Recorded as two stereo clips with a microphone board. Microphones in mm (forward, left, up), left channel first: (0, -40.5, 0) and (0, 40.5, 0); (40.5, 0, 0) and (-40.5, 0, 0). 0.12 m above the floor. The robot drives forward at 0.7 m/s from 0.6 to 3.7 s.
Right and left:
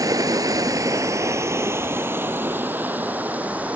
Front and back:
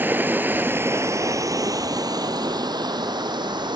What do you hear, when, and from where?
0.0 s running water: 120° left, 1.3 m; by 3.8 s 160° left, 3 m